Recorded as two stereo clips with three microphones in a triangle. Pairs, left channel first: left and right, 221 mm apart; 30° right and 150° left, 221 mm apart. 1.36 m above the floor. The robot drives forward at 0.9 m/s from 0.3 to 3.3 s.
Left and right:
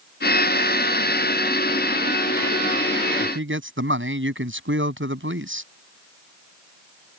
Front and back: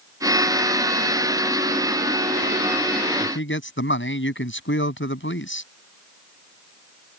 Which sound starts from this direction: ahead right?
A man speaking, at 3.2 s.